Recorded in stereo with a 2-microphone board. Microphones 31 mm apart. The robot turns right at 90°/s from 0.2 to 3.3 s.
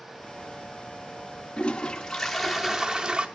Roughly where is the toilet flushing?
Left.